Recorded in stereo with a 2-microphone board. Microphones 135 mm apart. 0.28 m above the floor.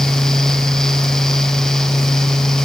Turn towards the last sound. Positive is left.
No sound to turn to.